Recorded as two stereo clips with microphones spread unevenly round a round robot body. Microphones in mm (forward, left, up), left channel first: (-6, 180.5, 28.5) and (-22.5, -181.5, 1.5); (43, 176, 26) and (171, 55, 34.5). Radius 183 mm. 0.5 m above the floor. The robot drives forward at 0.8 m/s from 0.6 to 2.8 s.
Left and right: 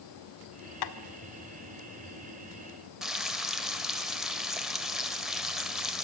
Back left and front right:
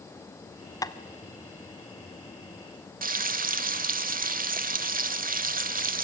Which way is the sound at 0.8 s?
75° left.